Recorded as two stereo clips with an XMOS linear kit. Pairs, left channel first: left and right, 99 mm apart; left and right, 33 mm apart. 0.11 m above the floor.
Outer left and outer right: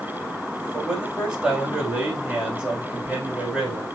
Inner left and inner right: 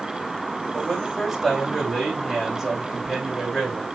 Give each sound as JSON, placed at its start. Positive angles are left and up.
{"t": 0.7, "sound": "a man speaking", "side_deg": -5, "distance_m": 7.5}